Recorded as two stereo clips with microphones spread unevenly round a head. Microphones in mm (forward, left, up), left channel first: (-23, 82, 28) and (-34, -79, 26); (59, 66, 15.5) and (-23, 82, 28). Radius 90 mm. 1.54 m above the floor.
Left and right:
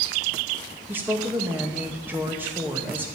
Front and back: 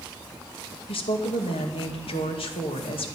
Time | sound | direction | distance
0.9 | a woman speaking | 15° right | 2.0 m